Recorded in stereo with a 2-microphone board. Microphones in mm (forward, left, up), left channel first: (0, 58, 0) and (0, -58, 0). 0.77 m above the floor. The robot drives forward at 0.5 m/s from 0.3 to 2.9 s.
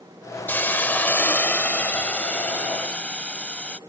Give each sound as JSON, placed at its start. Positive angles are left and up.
{"t": 0.5, "sound": "a hiss", "side_deg": 20}